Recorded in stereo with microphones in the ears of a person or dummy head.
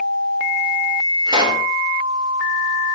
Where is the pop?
30° right (ahead or behind), 5.5 m.